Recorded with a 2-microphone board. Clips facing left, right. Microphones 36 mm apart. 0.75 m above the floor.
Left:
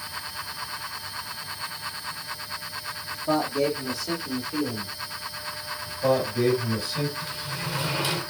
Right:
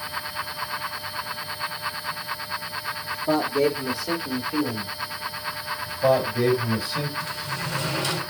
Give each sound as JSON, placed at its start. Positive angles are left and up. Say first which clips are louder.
{"t": 3.1, "sound": "a man speaking", "louder": "right 2 dB", "side_deg": -5, "distance_m": 1.4}
{"t": 5.9, "sound": "a man speaking", "louder": "right 3 dB", "side_deg": -20, "distance_m": 4.0}
{"t": 7.2, "sound": "a sliding door", "louder": "right 3 dB", "side_deg": 5, "distance_m": 2.5}